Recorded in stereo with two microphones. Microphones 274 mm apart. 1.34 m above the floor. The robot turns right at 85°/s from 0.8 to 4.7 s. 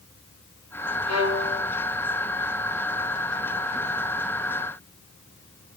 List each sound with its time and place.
1.1 s a violin: 115° left, 1.5 m; by 1.7 s 165° left, 1.5 m